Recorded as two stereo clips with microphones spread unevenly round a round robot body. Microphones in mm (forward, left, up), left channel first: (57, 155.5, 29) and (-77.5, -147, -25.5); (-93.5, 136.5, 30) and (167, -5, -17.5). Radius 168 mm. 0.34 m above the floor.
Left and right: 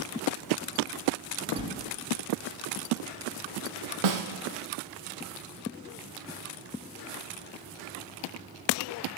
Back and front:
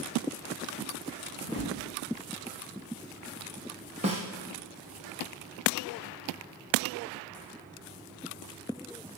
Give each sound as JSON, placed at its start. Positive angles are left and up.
{"t": 1.4, "sound": "a whoosh", "azimuth_deg": -145, "distance_m": 1.6}
{"t": 4.0, "sound": "a snare drum", "azimuth_deg": -100, "distance_m": 2.5}